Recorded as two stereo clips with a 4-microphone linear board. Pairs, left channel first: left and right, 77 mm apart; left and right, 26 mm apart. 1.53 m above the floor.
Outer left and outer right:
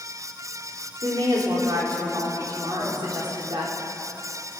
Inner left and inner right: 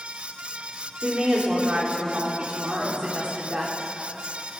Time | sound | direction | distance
1.0 | a woman speaking | 60° right (ahead or behind) | 3.5 m